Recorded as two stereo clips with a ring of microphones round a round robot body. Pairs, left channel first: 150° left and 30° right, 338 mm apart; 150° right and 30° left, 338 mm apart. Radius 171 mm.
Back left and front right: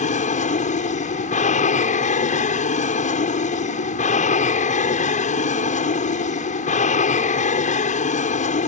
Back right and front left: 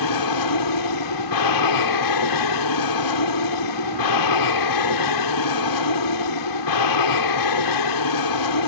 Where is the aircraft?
145° right.